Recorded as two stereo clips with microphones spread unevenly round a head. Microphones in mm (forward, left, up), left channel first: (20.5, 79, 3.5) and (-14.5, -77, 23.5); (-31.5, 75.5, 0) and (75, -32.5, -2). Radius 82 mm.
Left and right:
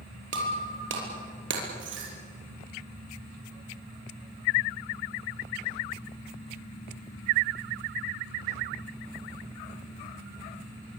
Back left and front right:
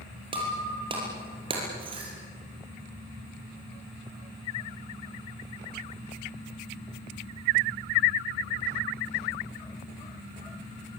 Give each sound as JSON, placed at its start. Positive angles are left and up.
{"t": 0.3, "sound": "breaking glass", "azimuth_deg": -110, "distance_m": 5.5}